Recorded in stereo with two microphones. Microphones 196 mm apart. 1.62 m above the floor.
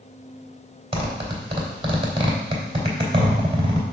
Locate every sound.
0.9 s a zipper: 30° right (ahead or behind), 2.5 m